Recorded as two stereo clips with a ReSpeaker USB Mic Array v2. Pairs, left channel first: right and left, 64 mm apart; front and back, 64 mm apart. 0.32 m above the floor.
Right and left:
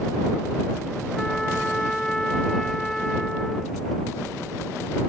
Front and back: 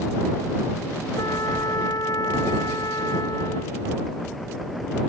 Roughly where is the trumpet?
Ahead.